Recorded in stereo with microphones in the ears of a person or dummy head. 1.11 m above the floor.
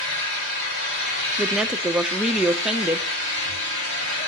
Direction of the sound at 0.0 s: 65° left (ahead or behind).